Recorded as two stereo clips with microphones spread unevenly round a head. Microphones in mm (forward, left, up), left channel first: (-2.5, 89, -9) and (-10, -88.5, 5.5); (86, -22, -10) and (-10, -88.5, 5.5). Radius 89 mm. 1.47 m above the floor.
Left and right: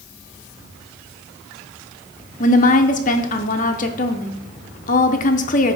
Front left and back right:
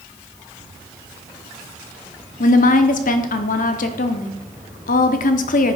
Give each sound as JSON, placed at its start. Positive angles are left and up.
{"t": 2.4, "sound": "a woman speaking", "azimuth_deg": 35, "distance_m": 0.8}